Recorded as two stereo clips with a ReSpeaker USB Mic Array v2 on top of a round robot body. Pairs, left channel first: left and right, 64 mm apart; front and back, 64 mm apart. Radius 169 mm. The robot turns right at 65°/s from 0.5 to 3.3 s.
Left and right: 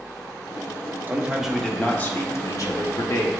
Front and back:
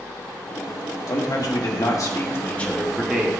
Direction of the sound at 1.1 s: 30° right.